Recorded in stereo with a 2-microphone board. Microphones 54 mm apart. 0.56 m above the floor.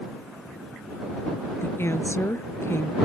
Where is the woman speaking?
45° left (ahead or behind).